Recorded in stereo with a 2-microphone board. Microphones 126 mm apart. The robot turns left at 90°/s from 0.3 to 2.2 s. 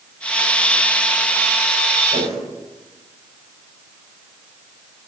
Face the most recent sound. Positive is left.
turn(degrees=-65)  # may be behind; listen again after turning